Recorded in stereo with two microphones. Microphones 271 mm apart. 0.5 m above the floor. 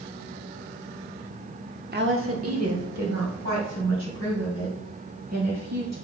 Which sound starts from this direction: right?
A woman speaking, at 1.9 s.